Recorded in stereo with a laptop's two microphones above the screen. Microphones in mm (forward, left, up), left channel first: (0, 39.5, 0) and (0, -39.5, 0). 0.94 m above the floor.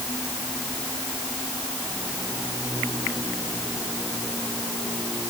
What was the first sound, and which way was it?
Only background noise.